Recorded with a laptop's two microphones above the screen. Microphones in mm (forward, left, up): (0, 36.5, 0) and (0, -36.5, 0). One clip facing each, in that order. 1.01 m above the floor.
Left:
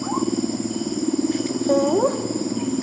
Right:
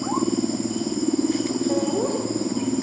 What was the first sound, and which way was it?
Laughter, 65° left (ahead or behind).